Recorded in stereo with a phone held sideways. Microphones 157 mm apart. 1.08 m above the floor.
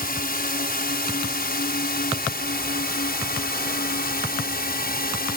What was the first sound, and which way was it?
A drone, 65° left (ahead or behind).